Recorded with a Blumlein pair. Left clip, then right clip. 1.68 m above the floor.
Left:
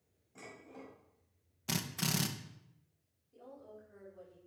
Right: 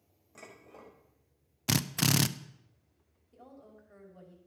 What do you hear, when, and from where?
0.3 s dishes clattering: 55° right, 4.5 m
1.7 s a drill: 25° right, 0.5 m
3.3 s a woman speaking: 35° right, 5 m